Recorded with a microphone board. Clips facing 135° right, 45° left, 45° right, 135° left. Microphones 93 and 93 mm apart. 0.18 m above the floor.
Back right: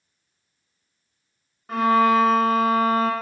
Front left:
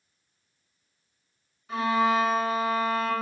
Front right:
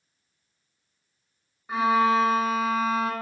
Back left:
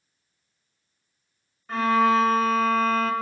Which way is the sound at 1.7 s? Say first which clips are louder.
Back right 6 dB, back left 1 dB; 125° right.